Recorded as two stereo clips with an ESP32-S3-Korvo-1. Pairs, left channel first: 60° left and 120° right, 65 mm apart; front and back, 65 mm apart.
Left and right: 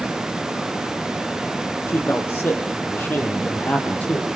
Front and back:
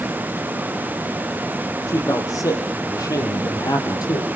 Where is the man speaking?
10° left, 6.5 m; by 4.3 s 10° right, 5 m.